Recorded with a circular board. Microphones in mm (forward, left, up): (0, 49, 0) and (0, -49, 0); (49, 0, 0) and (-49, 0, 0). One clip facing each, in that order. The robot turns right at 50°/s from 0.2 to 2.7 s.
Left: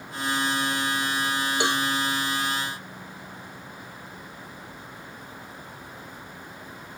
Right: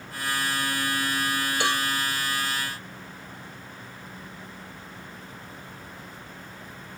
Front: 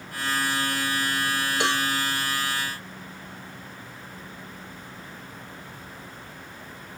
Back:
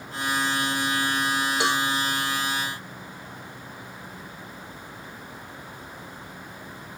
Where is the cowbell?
95° left, 0.6 m; by 1.9 s 110° left, 0.6 m.